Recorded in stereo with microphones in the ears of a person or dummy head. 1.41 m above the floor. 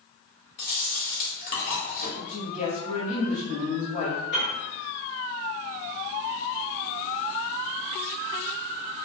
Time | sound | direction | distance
0.6 | chewing | 45° left (ahead or behind) | 1.0 m
2.2 | a woman speaking | 35° left (ahead or behind) | 0.8 m
4.3 | a piano | 35° left (ahead or behind) | 0.9 m